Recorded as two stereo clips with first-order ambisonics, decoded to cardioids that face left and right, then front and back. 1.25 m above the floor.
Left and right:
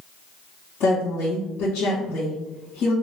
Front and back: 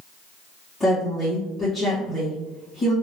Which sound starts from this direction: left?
A woman speaking, at 0.8 s.